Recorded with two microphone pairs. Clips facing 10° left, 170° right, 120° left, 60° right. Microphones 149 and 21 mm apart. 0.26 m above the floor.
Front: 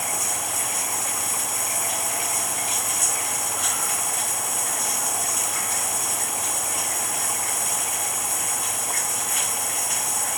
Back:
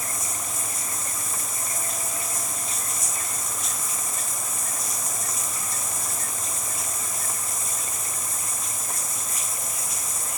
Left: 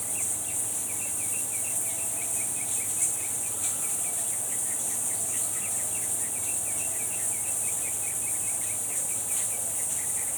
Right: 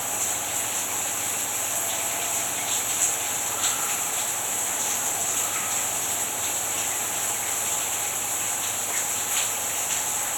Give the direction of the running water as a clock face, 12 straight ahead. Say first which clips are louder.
Front 5 dB, right 6 dB; 1 o'clock.